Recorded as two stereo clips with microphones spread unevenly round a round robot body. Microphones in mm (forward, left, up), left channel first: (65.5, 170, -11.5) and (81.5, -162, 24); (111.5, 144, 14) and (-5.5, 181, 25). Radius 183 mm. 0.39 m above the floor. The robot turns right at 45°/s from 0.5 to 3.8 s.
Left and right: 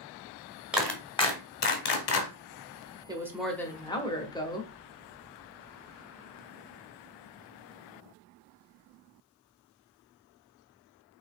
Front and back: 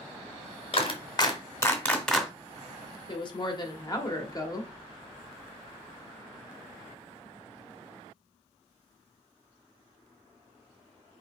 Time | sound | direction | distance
0.7 | a clap | 5° left | 1.6 m
3.1 | a woman speaking | 10° right | 1.3 m